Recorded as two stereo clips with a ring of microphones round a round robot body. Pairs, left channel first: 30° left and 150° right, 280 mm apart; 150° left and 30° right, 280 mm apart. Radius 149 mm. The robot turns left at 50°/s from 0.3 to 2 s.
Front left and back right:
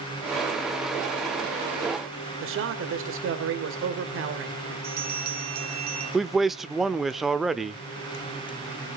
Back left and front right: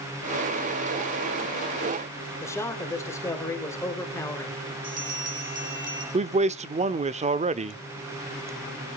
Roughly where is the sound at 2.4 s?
Behind right.